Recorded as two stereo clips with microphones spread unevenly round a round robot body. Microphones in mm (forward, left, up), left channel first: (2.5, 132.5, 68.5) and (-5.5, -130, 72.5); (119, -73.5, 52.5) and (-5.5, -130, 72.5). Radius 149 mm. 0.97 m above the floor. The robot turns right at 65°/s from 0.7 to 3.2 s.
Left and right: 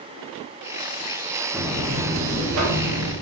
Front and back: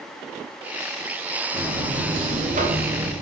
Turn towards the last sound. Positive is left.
turn(degrees=-85)